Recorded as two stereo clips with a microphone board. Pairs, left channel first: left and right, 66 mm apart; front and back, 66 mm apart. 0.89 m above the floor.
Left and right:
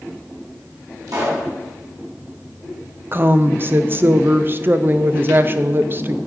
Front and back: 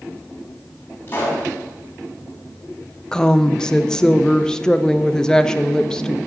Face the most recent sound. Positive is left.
turn(degrees=-70)